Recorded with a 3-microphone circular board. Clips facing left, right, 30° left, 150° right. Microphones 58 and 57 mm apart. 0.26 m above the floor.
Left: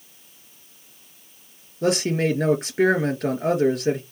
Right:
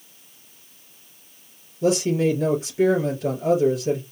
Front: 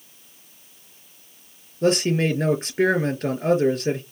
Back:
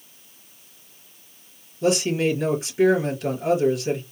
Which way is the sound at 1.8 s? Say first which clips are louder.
Right 1 dB, front 1 dB; 75° left.